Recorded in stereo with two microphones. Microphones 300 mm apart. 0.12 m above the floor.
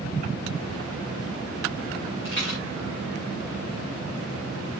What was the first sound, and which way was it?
A rattle, 40° left (ahead or behind).